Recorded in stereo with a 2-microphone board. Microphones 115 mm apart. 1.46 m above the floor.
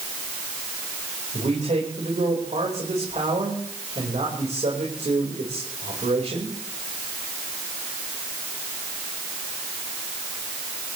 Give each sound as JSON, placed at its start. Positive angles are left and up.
{"t": 1.3, "sound": "a man speaking", "side_deg": -85, "distance_m": 5.5}